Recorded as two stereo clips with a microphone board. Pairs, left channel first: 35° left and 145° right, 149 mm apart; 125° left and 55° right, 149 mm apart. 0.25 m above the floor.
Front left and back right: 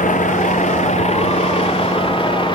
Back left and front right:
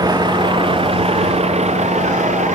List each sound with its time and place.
0.0 s a vehicle: 5° left; by 2.6 s 20° right